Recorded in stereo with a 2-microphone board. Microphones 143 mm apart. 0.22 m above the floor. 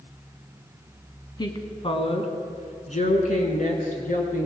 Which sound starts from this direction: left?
A woman speaking, at 1.4 s.